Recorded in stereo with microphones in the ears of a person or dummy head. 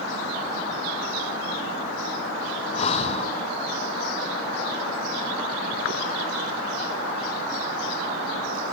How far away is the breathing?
About 1.1 m.